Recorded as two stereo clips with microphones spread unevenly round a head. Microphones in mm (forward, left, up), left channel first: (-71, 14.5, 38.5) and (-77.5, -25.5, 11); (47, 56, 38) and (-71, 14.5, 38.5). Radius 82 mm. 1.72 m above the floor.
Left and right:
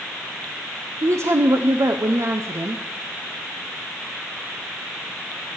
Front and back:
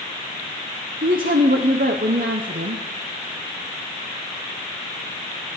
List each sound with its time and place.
1.0 s a woman speaking: 125° right, 0.9 m